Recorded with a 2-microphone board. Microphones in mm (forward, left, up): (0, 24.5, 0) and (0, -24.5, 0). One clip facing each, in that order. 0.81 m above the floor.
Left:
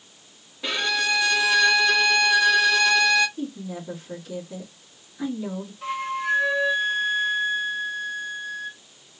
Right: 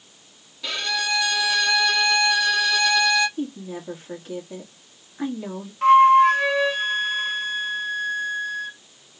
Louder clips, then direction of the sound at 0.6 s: Left 2 dB; 25° left (ahead or behind).